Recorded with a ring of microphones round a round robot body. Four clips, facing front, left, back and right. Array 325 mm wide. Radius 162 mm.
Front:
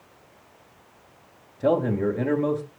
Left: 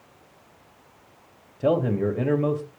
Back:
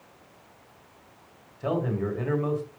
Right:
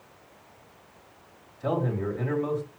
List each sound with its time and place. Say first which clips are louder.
1.6 s a man speaking: left 6 dB, front 6 dB; 55° left, 3.5 m